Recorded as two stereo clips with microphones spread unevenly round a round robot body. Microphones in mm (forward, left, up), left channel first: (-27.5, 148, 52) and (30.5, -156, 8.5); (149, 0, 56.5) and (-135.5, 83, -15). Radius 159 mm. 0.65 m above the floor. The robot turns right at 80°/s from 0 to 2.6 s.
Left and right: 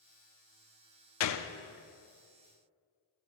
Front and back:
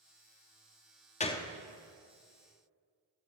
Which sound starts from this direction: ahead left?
A gunshot, at 1.2 s.